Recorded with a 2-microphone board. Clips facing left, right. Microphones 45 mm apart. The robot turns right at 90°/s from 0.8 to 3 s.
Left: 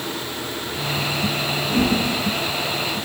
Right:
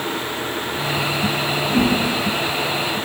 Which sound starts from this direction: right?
A whoosh, at 1.7 s.